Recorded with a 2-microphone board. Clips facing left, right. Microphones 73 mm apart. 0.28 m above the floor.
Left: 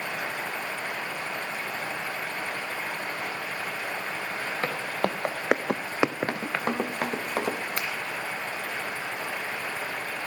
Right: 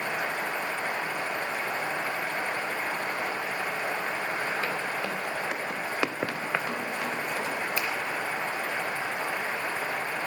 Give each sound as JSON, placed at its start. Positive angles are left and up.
{"t": 4.6, "sound": "footsteps", "side_deg": 50, "distance_m": 2.0}
{"t": 6.3, "sound": "running footsteps", "side_deg": 45, "distance_m": 1.4}
{"t": 7.8, "sound": "a finger snap", "side_deg": 60, "distance_m": 1.8}